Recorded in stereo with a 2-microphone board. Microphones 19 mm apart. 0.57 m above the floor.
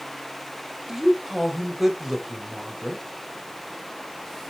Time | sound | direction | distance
0.9 | a woman speaking | 20° right (ahead or behind) | 2 m